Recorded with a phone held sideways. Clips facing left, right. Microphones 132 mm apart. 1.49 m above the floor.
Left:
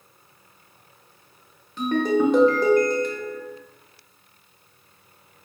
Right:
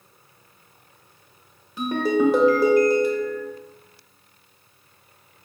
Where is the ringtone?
10° right (ahead or behind), 0.8 m.